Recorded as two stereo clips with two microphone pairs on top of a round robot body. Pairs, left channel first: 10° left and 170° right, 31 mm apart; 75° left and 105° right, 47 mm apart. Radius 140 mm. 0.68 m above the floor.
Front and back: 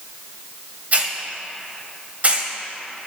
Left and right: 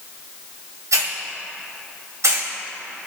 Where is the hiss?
120° right, 1.9 m.